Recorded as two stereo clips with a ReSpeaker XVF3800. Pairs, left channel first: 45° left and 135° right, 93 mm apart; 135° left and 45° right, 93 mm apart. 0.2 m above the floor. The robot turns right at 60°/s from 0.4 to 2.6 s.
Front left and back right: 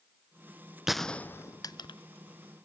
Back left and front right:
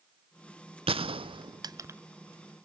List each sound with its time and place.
0.9 s a gunshot: 50° right, 0.5 m; by 2.0 s 20° left, 0.5 m